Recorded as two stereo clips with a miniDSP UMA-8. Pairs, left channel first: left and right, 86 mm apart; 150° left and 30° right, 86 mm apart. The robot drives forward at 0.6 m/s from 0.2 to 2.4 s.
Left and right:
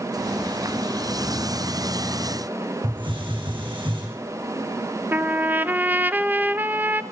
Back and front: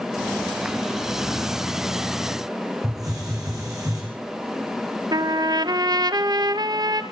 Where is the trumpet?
30° right, 0.9 m.